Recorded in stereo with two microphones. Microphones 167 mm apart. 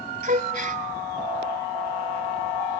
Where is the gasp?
55° right (ahead or behind), 1.2 m.